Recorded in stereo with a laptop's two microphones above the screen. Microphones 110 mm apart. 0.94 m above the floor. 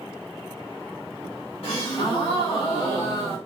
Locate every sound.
1.6 s a gasp: 65° left (ahead or behind), 1.4 m